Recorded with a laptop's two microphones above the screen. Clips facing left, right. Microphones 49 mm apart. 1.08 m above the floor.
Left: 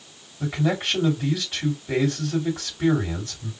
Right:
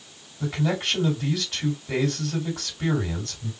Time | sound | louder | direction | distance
0.4 | a man speaking | left 2 dB | 15° left (ahead or behind) | 2.5 m